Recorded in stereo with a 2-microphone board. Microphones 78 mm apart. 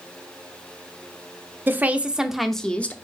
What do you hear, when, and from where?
1.7 s a woman speaking: 25° right (ahead or behind), 0.9 m; by 3.0 s 20° left (ahead or behind), 0.8 m